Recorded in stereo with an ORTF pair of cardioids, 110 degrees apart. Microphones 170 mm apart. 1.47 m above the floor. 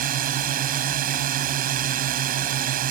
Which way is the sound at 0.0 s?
65° right.